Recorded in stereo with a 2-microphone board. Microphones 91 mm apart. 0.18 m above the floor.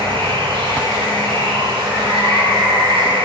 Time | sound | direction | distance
0.0 | running water | 65° right (ahead or behind) | 8 m